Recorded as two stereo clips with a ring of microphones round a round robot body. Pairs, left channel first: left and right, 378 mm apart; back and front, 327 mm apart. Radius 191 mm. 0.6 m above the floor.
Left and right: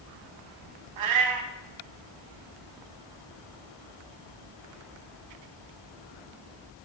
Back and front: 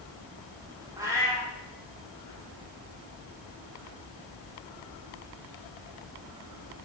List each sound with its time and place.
1.0 s a cat meowing: 80° right, 0.9 m